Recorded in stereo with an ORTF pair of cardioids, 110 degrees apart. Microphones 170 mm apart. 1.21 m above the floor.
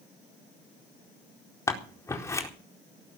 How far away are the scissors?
About 4 m.